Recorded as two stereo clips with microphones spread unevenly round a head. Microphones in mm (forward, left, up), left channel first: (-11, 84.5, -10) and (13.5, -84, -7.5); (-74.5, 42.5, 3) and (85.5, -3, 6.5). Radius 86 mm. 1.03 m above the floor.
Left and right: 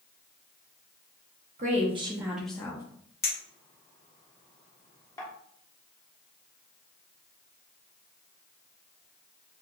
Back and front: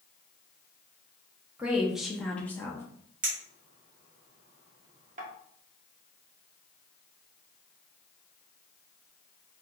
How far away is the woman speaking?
About 0.9 m.